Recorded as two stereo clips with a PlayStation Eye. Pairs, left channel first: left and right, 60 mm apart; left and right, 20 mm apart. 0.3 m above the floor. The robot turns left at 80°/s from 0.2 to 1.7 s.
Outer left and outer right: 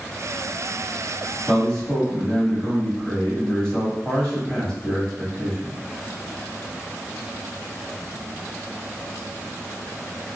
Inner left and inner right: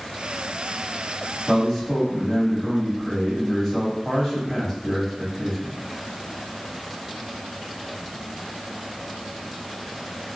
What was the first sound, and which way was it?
A man speaking, centre (ahead or behind).